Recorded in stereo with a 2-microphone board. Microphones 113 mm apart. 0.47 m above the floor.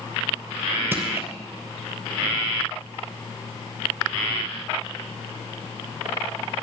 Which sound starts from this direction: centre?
Crushing, at 0.9 s.